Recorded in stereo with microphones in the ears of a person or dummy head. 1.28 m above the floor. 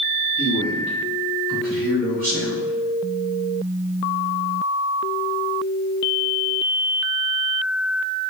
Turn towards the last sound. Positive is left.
turn(degrees=-65)  # may be behind; listen again after turning